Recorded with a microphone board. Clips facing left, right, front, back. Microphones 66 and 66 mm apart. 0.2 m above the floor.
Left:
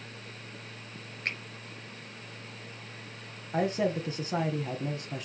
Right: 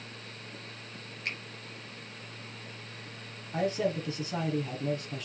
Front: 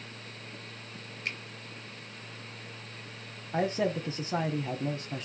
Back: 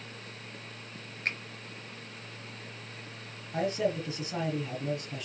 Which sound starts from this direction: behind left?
A finger snap, at 1.2 s.